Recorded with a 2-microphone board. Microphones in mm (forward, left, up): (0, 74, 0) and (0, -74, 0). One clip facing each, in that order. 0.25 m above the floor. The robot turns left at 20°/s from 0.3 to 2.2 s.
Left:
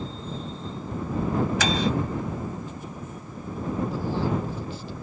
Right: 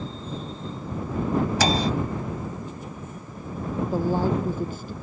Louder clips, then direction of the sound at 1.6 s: Right 2 dB; 40° right (ahead or behind).